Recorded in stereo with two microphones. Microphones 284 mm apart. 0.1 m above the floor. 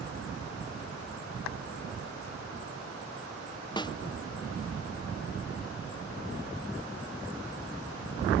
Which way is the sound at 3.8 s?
15° left (ahead or behind).